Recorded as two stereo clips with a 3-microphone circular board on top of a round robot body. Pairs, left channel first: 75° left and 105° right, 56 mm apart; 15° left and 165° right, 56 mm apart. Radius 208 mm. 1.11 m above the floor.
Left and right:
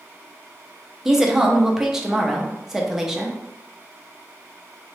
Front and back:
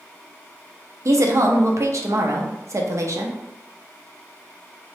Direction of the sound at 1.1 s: 170° left.